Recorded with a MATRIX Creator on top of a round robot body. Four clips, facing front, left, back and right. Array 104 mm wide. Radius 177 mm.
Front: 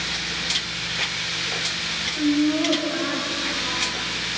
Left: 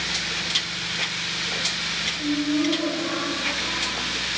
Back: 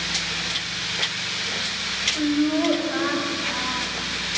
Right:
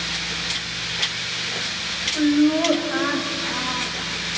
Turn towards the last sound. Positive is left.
turn(degrees=-130)